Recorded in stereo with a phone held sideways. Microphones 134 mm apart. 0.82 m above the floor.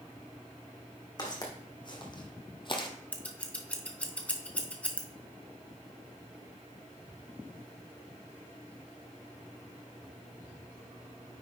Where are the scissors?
10° left (ahead or behind), 1.1 m.